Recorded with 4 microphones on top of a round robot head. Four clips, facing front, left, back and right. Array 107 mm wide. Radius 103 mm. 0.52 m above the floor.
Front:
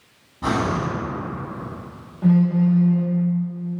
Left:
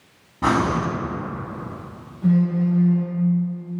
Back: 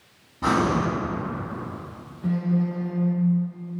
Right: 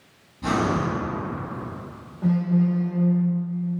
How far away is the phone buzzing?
About 2.5 m.